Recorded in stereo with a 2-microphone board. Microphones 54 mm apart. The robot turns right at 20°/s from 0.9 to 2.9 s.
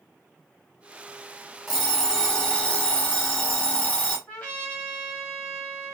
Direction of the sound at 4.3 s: 30° left (ahead or behind).